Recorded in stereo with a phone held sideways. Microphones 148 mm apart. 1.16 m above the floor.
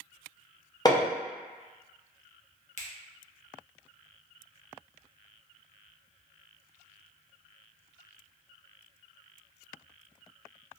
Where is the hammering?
25° left (ahead or behind), 0.7 m.